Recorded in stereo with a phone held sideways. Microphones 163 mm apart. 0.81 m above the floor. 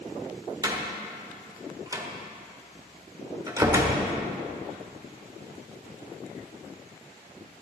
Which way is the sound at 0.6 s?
25° right (ahead or behind).